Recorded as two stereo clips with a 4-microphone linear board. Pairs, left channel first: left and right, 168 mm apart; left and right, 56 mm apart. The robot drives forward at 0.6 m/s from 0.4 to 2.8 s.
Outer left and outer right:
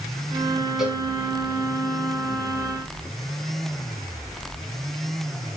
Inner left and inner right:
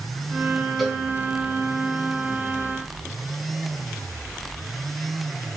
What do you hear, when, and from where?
0.8 s a cowbell: 5° right (ahead or behind), 3.5 m